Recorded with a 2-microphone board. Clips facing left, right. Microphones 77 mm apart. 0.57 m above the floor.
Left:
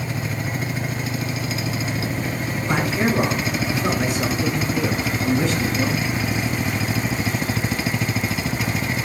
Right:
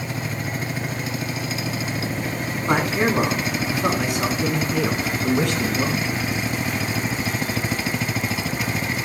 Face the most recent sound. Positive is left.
turn(degrees=-70)  # may be behind; listen again after turning